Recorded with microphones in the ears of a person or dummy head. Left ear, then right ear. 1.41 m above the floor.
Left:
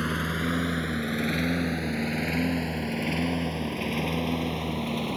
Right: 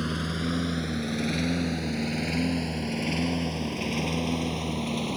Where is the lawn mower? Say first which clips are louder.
Left 3 dB; 20° left (ahead or behind); by 5.2 s 10° left (ahead or behind).